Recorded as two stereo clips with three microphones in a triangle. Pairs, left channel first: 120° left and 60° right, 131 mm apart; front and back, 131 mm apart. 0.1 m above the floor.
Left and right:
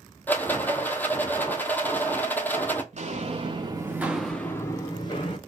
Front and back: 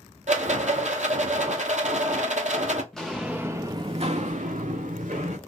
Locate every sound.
0.3 s a rattle: 165° right, 0.5 m
2.9 s footsteps: 90° right, 0.8 m; by 5.4 s 165° left, 1.0 m